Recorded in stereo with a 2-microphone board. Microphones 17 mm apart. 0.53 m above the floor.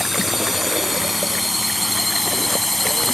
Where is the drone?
15° right (ahead or behind); by 3.1 s 10° left (ahead or behind).